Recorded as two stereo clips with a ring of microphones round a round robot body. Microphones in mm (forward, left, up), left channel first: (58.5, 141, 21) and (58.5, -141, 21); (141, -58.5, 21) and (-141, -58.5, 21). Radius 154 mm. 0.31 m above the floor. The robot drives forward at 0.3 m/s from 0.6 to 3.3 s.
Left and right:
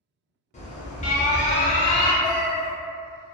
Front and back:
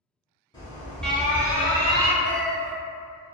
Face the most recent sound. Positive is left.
turn(degrees=100)